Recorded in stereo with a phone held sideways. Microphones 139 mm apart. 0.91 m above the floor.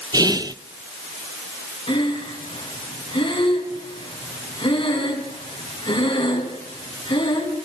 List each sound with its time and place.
0.1 s whispering: 30° right (ahead or behind), 0.6 m
1.9 s breathing: 45° left (ahead or behind), 3.5 m